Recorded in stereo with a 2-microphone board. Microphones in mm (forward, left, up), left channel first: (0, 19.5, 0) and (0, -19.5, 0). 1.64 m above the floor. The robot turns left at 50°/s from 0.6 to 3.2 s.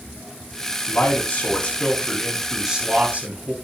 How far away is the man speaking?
About 3.5 m.